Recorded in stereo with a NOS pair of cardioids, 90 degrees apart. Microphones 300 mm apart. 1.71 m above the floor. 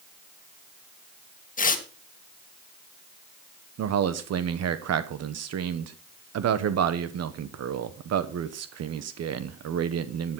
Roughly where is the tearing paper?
Ahead left.